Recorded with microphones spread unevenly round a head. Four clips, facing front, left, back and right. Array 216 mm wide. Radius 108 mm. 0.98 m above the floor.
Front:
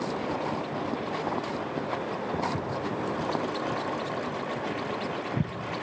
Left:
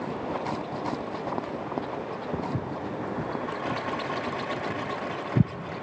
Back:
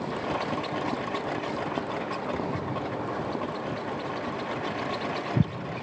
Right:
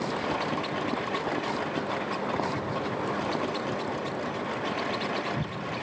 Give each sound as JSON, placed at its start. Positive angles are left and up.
{"t": 2.3, "sound": "footsteps", "azimuth_deg": 80, "distance_m": 5.5}